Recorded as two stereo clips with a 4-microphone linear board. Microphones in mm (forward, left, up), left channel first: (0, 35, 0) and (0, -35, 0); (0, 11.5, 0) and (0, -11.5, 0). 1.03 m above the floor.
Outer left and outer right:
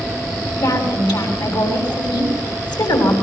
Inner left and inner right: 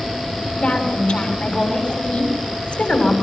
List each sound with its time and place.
0.6 s a woman speaking: 75° left (ahead or behind), 6.5 m